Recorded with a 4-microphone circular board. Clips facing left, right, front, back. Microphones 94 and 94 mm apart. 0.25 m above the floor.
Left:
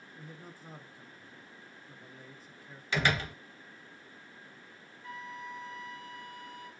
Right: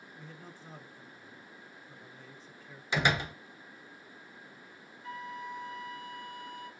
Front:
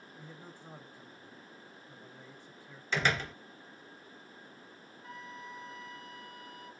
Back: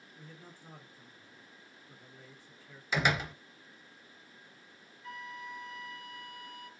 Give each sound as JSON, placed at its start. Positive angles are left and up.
{"t": 0.2, "sound": "a man speaking", "azimuth_deg": 20, "distance_m": 0.9}
{"t": 2.9, "sound": "a door slam", "azimuth_deg": -115, "distance_m": 0.7}
{"t": 5.0, "sound": "a flute", "azimuth_deg": -45, "distance_m": 1.8}